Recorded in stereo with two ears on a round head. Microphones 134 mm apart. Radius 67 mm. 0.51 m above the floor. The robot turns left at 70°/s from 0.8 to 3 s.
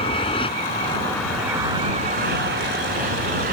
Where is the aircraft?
35° left (ahead or behind); by 3.5 s 60° right (ahead or behind).